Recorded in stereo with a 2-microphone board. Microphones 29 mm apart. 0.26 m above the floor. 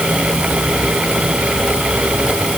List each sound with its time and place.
Only background noise.